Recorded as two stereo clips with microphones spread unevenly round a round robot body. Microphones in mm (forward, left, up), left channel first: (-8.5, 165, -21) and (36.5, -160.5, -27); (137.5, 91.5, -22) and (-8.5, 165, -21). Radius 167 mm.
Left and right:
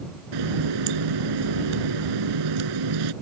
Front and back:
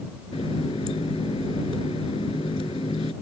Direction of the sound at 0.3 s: 100° right.